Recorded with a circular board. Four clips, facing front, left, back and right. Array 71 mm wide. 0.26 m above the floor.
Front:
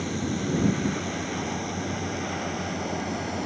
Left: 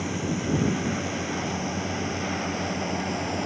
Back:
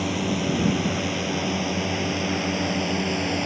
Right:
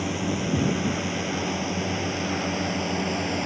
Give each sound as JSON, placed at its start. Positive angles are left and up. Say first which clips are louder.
{"t": 0.0, "sound": "a drone", "louder": "right 1 dB, back 4 dB", "azimuth_deg": -160}